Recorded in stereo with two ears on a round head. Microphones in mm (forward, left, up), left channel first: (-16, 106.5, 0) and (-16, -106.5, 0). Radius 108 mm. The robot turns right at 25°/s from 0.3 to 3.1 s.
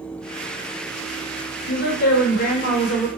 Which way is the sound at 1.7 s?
115° left.